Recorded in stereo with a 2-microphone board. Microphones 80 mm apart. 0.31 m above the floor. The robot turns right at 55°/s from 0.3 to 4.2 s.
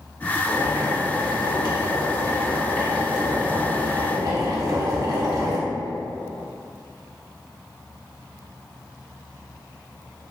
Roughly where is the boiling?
Ahead left.